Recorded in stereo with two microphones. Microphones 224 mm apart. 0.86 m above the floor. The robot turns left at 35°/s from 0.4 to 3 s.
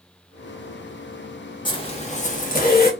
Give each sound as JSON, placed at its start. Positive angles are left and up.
{"t": 1.6, "sound": "a zipper", "azimuth_deg": 150, "distance_m": 0.8}